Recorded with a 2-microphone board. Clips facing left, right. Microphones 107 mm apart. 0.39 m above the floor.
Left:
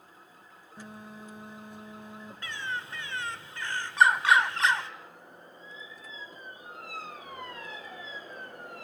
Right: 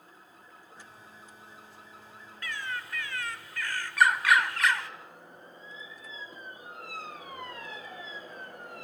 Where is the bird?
25° left (ahead or behind), 1.3 m.